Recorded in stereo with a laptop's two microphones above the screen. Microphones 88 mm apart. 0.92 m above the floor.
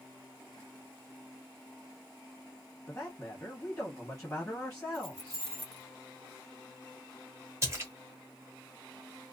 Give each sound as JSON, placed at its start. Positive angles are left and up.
{"t": 2.9, "sound": "a man speaking", "side_deg": 20, "distance_m": 1.2}
{"t": 4.9, "sound": "keys jangling", "side_deg": -45, "distance_m": 1.6}
{"t": 7.6, "sound": "a splash", "side_deg": -30, "distance_m": 1.4}